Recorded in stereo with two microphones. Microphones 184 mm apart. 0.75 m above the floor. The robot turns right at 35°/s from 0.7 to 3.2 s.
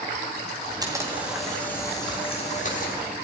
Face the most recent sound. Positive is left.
turn(degrees=60)